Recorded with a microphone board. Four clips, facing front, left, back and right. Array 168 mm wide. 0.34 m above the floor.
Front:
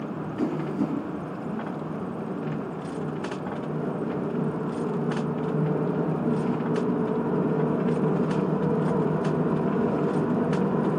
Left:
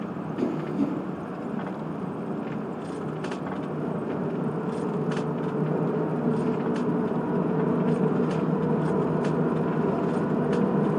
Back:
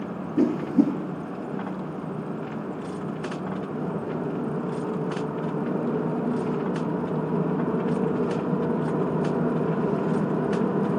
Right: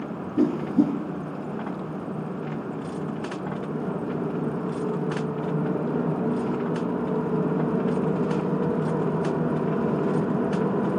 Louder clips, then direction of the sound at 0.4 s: Right 6 dB, back 7 dB; 140° right.